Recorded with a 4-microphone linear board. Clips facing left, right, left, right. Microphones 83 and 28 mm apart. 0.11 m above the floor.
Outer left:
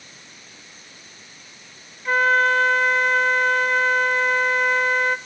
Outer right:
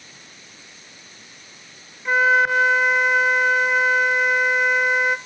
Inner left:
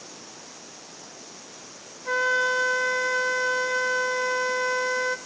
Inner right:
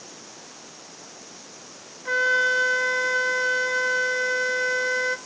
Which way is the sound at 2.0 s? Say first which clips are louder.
Outer right 1 dB, inner right 2 dB; 10° right (ahead or behind).